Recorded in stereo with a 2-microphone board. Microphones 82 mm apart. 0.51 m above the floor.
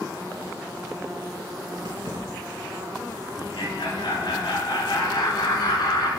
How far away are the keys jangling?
About 4 m.